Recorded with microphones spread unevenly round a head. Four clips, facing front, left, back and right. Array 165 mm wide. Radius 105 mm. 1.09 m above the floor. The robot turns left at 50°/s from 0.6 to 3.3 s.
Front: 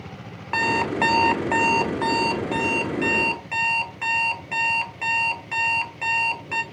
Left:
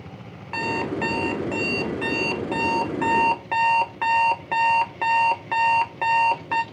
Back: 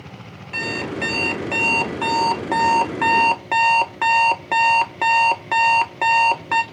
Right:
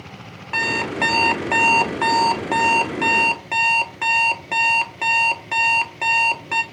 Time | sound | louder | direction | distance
0.5 | an alarm clock | right 2 dB, front 5 dB | 30° right | 1.1 m